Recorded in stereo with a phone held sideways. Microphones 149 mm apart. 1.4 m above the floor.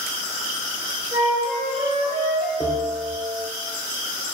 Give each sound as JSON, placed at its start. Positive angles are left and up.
{"t": 1.1, "sound": "a flute", "side_deg": -5, "distance_m": 1.3}
{"t": 2.6, "sound": "a bell", "side_deg": 10, "distance_m": 0.7}